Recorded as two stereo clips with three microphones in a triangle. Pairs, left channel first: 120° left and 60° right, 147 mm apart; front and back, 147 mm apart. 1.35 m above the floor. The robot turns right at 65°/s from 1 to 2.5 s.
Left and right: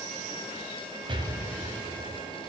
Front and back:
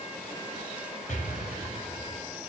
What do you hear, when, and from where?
1.1 s an explosion: 10° right, 2 m; by 2.2 s 60° left, 2 m